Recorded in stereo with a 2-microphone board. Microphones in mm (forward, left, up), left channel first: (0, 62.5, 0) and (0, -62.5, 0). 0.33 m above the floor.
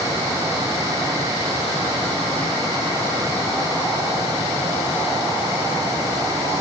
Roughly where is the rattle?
No rattle in this recording.